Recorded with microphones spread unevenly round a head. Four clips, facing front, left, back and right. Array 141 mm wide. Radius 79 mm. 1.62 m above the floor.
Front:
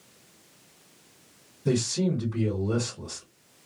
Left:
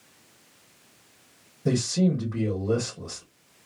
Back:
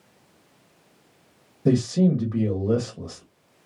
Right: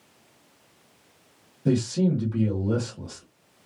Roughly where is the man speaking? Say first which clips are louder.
Right 1 dB, back 6 dB; behind.